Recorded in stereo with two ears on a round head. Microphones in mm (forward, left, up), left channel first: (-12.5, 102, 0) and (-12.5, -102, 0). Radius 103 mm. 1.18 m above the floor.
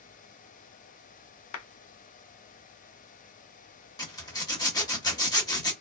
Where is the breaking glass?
I don't hear breaking glass.